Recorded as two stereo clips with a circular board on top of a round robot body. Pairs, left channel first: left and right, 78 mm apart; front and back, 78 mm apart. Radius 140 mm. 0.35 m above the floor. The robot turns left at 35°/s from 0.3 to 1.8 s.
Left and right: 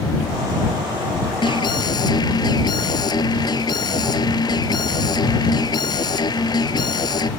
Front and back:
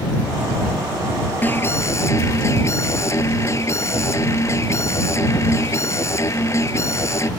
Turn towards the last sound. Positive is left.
turn(degrees=55)